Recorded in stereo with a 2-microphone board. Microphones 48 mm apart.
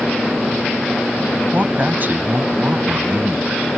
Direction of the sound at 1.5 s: 35° right (ahead or behind).